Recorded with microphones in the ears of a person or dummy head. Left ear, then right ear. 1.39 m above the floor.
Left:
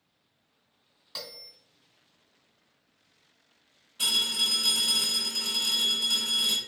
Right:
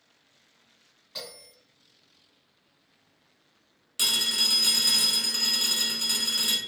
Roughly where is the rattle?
No rattle in this recording.